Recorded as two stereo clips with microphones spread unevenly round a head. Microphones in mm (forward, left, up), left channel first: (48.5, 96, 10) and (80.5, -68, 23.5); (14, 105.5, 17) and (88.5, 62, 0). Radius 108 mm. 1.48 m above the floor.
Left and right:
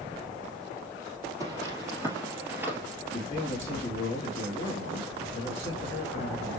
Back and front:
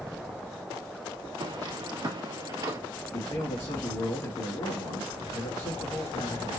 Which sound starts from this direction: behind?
A man speaking, at 3.1 s.